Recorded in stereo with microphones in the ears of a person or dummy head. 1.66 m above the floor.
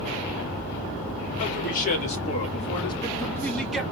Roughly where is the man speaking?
Left.